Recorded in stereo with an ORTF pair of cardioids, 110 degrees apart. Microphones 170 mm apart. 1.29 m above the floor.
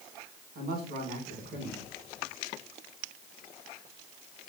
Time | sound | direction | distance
0.6 | a man speaking | 65° right | 2 m